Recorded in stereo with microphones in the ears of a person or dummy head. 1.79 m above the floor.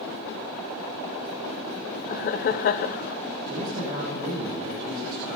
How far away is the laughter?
About 0.5 m.